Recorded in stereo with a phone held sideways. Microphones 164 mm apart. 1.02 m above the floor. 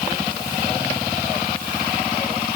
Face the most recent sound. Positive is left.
No sound to turn to.